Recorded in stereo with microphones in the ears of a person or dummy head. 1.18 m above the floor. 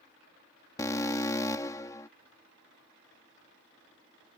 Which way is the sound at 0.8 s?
15° left (ahead or behind).